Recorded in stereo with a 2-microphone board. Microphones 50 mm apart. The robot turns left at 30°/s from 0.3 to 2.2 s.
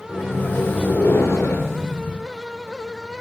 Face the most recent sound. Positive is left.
turn(degrees=75)